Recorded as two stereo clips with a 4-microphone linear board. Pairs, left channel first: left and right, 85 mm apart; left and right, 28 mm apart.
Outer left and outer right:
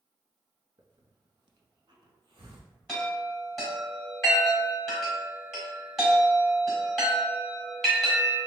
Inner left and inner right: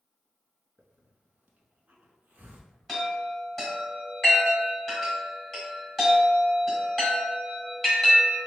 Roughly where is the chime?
Centre.